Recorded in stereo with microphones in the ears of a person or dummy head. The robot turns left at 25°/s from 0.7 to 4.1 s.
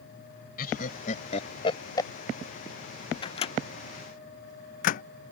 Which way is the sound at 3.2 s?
30° left (ahead or behind).